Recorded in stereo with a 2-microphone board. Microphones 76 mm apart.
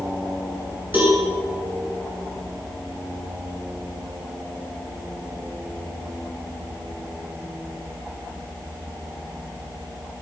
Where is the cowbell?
25° right (ahead or behind), 7 m.